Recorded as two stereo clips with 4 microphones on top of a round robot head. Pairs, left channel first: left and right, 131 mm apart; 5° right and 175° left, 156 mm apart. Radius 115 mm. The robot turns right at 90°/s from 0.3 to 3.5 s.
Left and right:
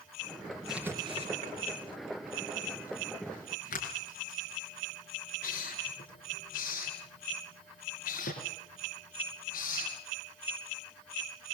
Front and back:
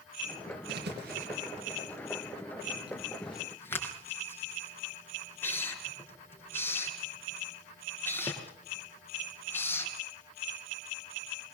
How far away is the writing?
About 6 m.